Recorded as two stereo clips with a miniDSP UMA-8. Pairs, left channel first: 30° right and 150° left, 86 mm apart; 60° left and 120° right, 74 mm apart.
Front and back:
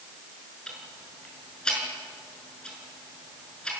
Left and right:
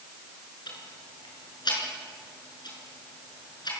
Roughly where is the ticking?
Ahead left.